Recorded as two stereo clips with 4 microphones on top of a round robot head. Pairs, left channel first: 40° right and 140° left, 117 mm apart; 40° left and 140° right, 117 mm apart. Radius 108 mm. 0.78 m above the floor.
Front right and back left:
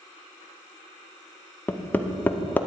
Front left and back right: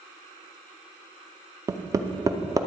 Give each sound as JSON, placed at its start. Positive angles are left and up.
{"t": 1.7, "sound": "hammering", "azimuth_deg": -105, "distance_m": 0.8}